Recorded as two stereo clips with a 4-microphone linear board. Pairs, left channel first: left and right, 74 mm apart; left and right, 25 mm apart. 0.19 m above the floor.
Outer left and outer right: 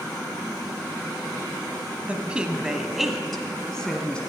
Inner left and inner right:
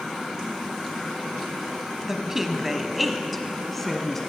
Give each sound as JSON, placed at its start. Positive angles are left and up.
{"t": 2.1, "sound": "a woman speaking", "side_deg": -20, "distance_m": 1.0}